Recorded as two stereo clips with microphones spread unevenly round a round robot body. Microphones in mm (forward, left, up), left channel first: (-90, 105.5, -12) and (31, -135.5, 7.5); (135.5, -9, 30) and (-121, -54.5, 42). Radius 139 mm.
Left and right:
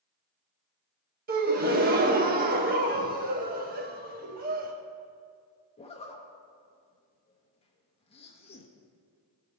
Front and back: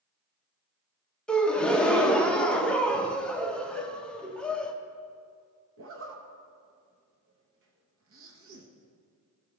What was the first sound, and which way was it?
A gasp, 65° right.